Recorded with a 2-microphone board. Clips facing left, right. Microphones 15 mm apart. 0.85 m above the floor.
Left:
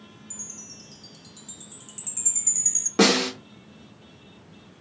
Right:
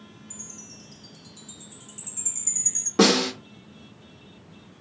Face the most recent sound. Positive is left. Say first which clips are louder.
# even
turn(degrees=20)  # may be behind; listen again after turning